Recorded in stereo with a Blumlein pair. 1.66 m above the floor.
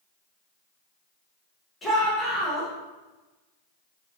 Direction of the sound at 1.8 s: 15° left.